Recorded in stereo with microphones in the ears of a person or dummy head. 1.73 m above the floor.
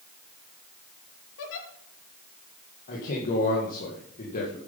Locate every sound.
1.4 s a giggle: 75° left (ahead or behind), 2.5 m
2.9 s a man speaking: 40° left (ahead or behind), 2.5 m